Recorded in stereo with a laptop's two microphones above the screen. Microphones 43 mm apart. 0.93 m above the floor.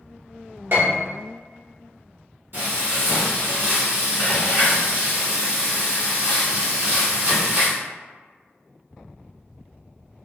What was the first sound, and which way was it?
A piano, 60° right (ahead or behind).